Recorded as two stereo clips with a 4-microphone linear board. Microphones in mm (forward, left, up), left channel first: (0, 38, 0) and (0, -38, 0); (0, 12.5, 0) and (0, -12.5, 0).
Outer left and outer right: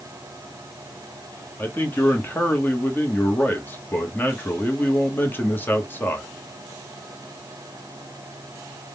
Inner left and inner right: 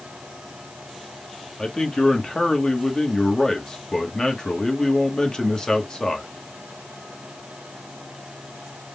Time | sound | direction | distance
1.6 | a man speaking | 25° left (ahead or behind) | 1.1 m